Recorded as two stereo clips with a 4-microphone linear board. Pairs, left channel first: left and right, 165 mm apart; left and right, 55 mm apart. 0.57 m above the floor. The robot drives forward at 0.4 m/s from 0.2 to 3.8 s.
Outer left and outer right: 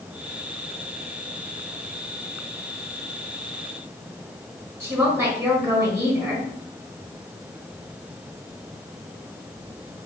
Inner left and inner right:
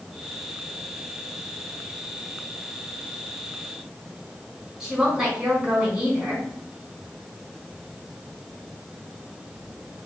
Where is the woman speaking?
15° right (ahead or behind), 4.5 m.